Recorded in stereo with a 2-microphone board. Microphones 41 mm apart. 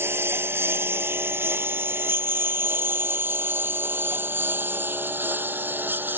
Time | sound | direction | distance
0.0 | a lawn mower | 80° right | ?